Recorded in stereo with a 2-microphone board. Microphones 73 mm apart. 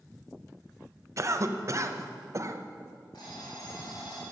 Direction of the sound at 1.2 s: 45° right (ahead or behind).